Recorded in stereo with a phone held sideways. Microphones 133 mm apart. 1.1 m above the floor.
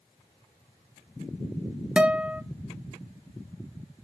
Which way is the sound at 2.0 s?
5° right (ahead or behind).